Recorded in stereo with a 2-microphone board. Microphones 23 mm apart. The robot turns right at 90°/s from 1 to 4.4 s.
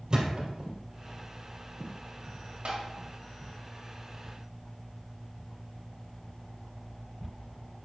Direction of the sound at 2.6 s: 75° right (ahead or behind).